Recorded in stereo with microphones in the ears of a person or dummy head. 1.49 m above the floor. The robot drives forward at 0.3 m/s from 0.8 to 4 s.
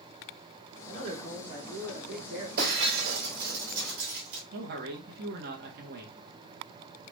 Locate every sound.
0.9 s a man speaking: 40° right (ahead or behind), 1.8 m; by 2.5 s 55° right (ahead or behind), 1.5 m
2.6 s breaking glass: 55° right (ahead or behind), 3 m; by 4.4 s 60° right (ahead or behind), 2.5 m
4.5 s a man speaking: 60° right (ahead or behind), 1.5 m